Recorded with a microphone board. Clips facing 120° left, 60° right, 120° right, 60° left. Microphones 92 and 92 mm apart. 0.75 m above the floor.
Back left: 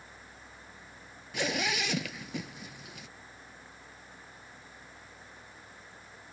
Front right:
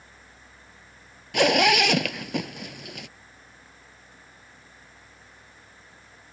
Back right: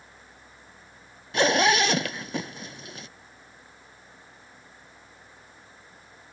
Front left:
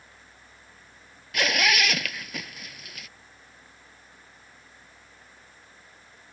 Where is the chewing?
No chewing in this recording.